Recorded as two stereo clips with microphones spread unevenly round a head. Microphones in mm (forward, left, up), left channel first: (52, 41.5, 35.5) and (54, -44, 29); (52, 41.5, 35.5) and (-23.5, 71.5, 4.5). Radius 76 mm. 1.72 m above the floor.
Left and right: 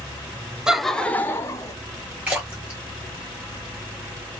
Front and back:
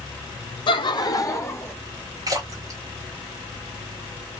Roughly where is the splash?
Behind right.